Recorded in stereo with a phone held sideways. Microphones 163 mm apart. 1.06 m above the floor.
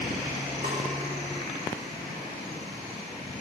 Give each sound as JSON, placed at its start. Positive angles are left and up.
{"t": 0.6, "sound": "a snare drum", "side_deg": -60, "distance_m": 2.0}